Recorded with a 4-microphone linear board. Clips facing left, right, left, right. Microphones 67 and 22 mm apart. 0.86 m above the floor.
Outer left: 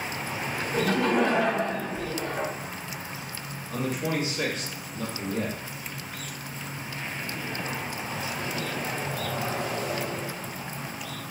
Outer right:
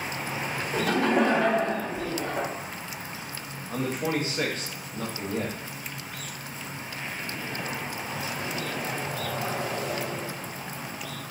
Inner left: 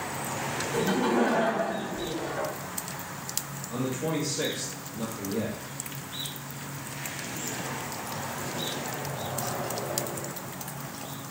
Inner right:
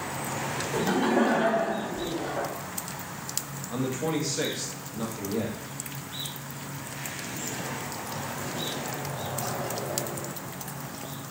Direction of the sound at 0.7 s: 45° right (ahead or behind).